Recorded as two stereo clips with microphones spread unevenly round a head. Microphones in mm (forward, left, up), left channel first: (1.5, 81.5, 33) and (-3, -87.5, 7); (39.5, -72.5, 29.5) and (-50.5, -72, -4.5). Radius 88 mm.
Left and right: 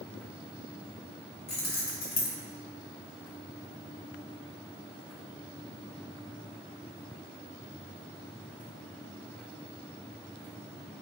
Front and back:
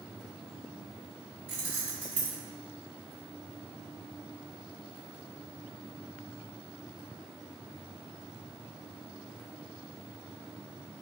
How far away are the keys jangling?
About 1.1 m.